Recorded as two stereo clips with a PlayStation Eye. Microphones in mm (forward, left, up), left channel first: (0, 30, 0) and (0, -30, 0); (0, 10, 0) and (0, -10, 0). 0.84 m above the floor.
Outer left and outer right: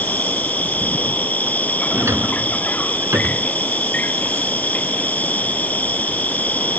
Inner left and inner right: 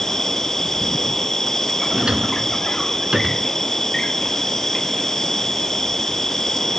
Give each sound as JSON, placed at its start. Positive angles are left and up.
{"t": 0.0, "sound": "an insect", "side_deg": 25}
{"t": 1.9, "sound": "a drawer", "side_deg": -50}